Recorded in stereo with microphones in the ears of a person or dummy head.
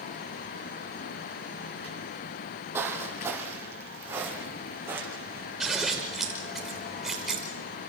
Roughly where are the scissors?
Centre.